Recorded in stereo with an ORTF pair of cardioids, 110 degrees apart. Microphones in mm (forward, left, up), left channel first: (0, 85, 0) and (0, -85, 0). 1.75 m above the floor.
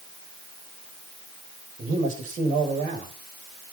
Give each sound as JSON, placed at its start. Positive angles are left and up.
{"t": 1.8, "sound": "a man speaking", "azimuth_deg": -55, "distance_m": 8.5}